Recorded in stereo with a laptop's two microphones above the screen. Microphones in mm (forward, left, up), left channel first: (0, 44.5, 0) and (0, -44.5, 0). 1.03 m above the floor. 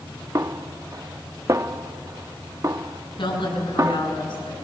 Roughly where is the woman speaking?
Left.